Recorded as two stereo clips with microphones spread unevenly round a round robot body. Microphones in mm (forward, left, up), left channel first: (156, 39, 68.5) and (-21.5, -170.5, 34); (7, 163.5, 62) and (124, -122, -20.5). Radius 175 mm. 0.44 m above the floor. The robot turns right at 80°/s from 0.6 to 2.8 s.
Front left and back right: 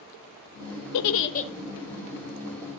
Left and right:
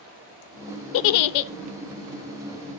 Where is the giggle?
85° left, 0.7 m; by 1.5 s 130° left, 0.7 m.